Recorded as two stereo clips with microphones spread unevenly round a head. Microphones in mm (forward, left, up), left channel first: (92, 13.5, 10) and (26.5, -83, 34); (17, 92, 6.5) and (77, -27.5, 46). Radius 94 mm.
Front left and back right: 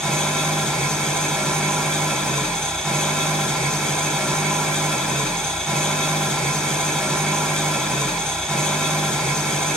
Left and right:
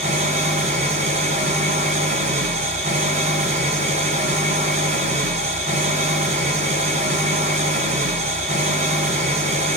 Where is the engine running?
30° right, 3.5 m.